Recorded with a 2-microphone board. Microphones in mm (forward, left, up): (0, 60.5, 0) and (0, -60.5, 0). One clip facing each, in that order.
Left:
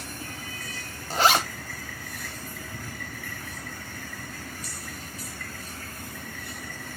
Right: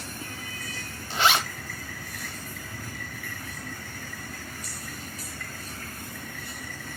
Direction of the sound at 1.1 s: 40° left (ahead or behind).